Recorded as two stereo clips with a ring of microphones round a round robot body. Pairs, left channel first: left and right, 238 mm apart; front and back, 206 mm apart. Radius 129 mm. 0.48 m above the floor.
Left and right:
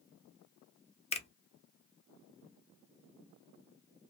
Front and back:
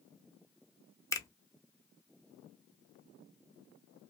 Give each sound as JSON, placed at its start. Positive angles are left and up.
{"t": 1.1, "sound": "a finger snap", "azimuth_deg": 60, "distance_m": 0.7}